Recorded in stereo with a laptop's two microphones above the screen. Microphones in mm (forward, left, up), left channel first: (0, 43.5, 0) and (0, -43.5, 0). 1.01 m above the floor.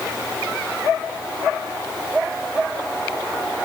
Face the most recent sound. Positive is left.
No sound to turn to.